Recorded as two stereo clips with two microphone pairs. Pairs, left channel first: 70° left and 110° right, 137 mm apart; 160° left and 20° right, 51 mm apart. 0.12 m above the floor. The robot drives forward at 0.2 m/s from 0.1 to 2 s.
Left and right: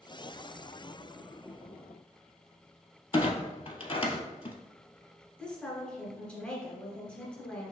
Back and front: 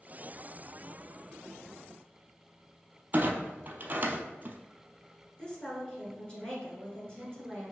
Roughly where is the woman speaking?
Behind left.